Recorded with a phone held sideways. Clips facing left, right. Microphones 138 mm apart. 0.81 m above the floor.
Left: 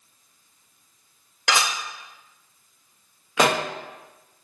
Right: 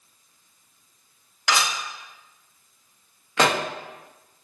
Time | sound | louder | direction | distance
1.5 | dishes clattering | even | 75° left (ahead or behind) | 1.1 m
3.4 | a pop | left 1 dB | 10° left (ahead or behind) | 0.5 m